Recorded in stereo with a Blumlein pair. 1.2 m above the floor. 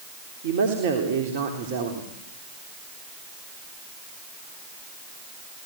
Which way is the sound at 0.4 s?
55° right.